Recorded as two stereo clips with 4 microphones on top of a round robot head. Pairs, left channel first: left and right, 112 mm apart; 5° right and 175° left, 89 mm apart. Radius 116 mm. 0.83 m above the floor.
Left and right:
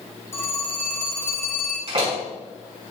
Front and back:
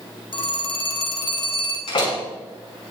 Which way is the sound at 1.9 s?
45° right.